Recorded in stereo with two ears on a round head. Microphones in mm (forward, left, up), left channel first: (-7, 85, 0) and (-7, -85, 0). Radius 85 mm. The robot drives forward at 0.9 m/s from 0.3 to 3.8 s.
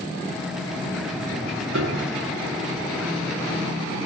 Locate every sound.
1.7 s a piano: 80° right, 4 m; by 2.2 s 85° right, 4 m